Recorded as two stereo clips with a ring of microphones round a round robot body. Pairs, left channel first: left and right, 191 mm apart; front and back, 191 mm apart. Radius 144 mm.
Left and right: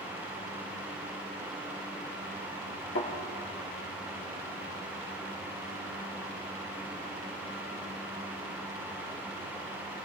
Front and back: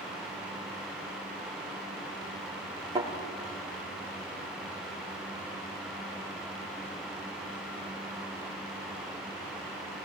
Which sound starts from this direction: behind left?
A thud, at 3.0 s.